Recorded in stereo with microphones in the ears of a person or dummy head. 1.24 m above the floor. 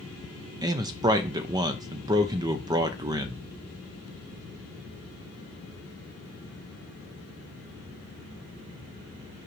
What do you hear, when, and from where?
0.6 s a man speaking: 20° right (ahead or behind), 0.6 m